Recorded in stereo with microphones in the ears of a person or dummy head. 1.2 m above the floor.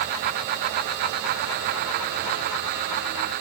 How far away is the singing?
No singing in this recording.